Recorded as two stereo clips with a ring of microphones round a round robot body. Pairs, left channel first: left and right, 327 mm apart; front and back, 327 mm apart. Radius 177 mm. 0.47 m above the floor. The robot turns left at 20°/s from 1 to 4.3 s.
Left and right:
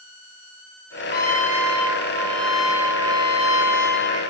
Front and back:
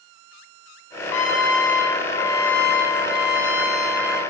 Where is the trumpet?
30° left, 1.0 m; by 4.2 s 35° right, 1.0 m.